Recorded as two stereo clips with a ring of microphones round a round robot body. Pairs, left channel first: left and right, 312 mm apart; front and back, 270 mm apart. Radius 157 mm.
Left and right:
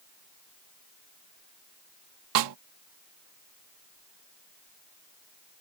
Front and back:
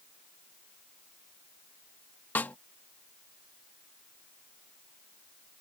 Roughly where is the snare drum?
Right.